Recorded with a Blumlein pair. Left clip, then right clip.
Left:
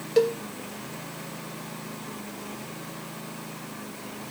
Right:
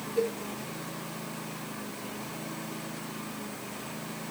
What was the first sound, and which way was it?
A cowbell, 40° left.